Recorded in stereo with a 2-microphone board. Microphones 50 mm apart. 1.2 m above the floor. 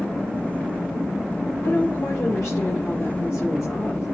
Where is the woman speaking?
65° left (ahead or behind), 4.5 m.